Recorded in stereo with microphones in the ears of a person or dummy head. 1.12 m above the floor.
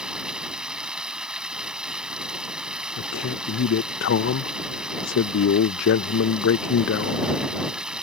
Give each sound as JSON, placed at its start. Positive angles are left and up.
{"t": 0.0, "sound": "running water", "side_deg": -5}
{"t": 3.0, "sound": "a man speaking", "side_deg": 60}